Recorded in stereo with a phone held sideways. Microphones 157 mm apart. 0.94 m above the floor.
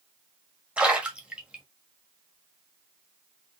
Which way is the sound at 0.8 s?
5° right (ahead or behind).